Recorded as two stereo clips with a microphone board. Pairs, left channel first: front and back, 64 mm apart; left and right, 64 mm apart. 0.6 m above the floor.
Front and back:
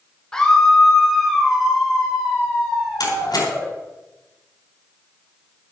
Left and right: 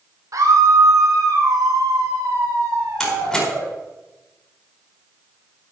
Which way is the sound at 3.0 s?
10° left.